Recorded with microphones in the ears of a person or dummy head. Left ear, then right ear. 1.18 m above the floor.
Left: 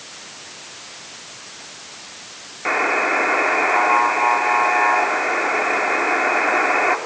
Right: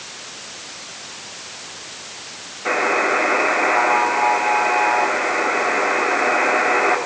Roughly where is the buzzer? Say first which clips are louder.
Even; left.